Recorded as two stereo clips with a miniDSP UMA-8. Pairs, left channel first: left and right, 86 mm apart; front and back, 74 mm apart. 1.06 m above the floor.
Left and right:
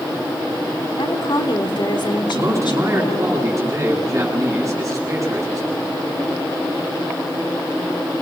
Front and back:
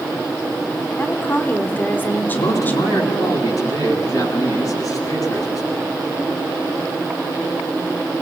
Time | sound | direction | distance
1.0 | a woman speaking | 65° left | 3 m
2.3 | a man speaking | 35° right | 10 m